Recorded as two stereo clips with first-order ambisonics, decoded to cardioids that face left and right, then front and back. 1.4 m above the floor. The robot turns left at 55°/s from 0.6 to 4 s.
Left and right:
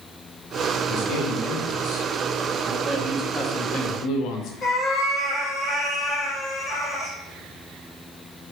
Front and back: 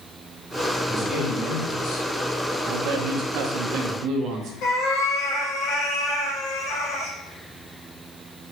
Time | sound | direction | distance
0.9 | a man speaking | 100° left | 1.9 m
2.7 | a man speaking | 155° right | 0.8 m
4.6 | a cat meowing | 30° left | 1.1 m